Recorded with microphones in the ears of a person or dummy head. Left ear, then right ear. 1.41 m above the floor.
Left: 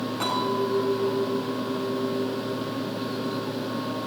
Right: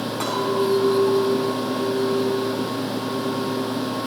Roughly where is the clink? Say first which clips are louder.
Right 3 dB; centre.